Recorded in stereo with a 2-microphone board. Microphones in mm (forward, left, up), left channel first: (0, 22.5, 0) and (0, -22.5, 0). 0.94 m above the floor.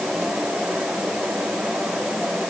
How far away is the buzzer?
I don't hear a buzzer.